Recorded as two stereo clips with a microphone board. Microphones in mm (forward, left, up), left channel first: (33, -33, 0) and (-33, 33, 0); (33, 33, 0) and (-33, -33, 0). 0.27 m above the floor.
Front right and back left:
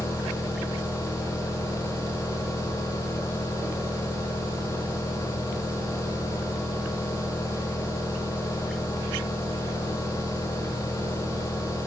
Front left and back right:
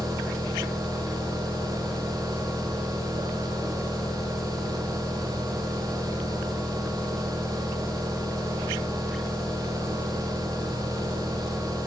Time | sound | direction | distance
0.0 | an engine running | 45° right | 5.5 m